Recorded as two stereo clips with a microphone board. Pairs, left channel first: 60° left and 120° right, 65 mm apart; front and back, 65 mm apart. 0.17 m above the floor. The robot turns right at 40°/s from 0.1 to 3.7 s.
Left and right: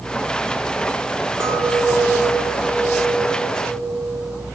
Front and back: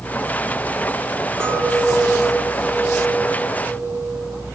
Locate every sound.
1.4 s a clink: 135° right, 2.5 m; by 4.5 s 45° right, 2.5 m